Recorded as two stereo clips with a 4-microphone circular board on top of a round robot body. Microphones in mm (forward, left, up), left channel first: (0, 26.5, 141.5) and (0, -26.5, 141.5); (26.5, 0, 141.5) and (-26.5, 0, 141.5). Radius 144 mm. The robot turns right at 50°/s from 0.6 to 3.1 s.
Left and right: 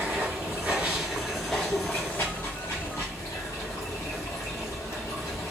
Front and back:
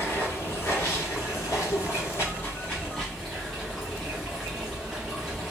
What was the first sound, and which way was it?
Running water, 40° right.